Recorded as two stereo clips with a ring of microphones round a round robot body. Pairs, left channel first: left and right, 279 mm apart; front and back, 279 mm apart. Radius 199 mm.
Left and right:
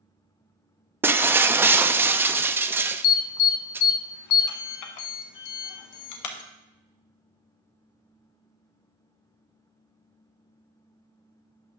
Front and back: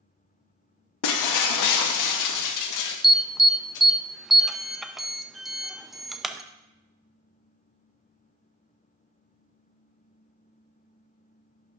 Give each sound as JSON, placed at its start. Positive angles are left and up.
{"t": 1.0, "sound": "breaking glass", "azimuth_deg": -5, "distance_m": 0.5}
{"t": 3.0, "sound": "an alarm", "azimuth_deg": 90, "distance_m": 0.8}